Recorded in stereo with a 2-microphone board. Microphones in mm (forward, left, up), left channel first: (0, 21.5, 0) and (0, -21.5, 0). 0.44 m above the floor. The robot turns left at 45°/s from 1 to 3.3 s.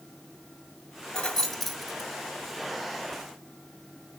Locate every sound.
1.1 s keys jangling: 20° left (ahead or behind), 1.0 m; by 2.1 s 10° right (ahead or behind), 1.0 m